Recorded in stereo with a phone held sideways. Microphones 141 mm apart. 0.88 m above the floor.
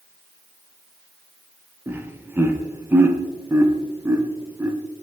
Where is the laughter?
15° right (ahead or behind), 0.5 m.